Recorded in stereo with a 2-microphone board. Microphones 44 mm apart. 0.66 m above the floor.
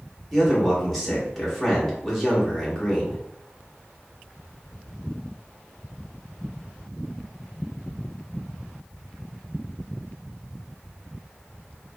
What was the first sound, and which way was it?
A man speaking, centre (ahead or behind).